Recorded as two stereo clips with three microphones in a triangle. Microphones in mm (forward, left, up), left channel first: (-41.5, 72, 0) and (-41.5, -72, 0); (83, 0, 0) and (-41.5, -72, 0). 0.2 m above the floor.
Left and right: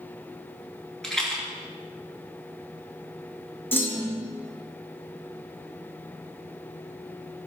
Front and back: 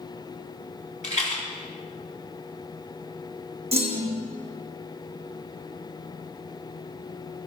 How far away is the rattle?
About 3 m.